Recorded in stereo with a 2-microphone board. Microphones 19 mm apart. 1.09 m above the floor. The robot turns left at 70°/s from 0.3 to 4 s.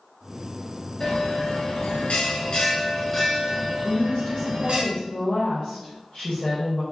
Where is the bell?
160° left, 1.2 m; by 4.8 s 50° right, 1.2 m.